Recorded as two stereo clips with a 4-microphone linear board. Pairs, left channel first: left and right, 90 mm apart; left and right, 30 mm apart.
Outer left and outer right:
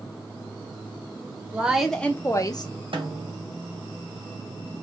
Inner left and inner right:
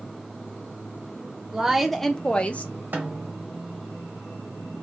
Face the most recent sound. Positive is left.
turn(degrees=-80)